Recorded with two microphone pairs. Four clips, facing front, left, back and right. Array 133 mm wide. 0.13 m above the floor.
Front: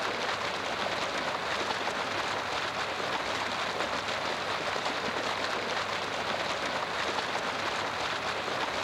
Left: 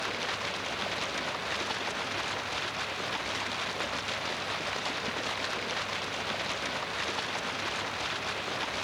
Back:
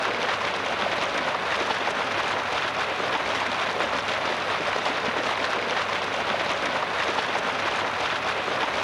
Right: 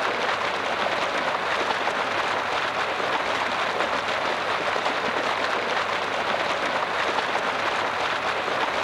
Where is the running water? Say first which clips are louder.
Right 10 dB, back 6 dB; 115° right.